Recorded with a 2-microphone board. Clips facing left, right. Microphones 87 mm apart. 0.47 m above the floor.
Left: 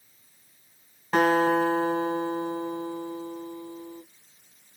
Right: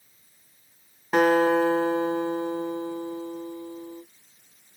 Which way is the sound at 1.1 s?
5° right (ahead or behind).